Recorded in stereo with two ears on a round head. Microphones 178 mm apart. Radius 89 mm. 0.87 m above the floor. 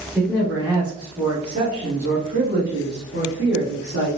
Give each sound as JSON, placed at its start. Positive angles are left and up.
{"t": 0.1, "sound": "a man speaking", "side_deg": 5, "distance_m": 1.2}